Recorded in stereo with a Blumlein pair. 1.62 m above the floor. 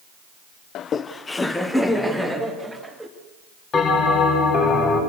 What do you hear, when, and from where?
0.8 s laughter: 35° left, 0.8 m; by 3.1 s straight ahead, 3.5 m
3.7 s a bell: 25° left, 5.5 m